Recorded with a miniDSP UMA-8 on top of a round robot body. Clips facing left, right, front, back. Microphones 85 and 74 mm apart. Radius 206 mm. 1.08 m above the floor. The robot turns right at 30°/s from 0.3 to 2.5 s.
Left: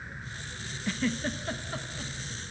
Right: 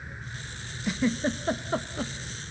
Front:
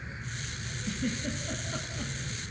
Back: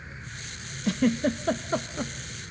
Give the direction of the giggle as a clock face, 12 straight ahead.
6 o'clock.